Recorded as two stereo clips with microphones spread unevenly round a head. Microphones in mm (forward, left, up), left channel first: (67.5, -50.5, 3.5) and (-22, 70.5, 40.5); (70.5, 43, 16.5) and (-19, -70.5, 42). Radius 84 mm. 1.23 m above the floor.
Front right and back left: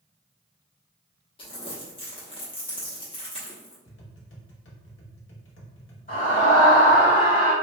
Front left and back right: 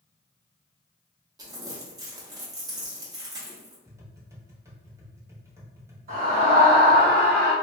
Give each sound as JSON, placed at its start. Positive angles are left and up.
{"t": 1.4, "sound": "crumpling", "azimuth_deg": -115, "distance_m": 0.8}
{"t": 3.9, "sound": "tapping", "azimuth_deg": -65, "distance_m": 0.9}
{"t": 6.1, "sound": "a scream", "azimuth_deg": -90, "distance_m": 1.4}